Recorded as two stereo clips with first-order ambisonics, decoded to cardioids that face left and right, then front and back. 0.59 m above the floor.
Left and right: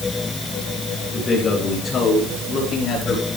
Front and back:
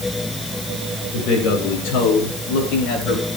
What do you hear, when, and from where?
1.1 s a man speaking: 20° left, 9 m; by 3.3 s 25° left, 10.5 m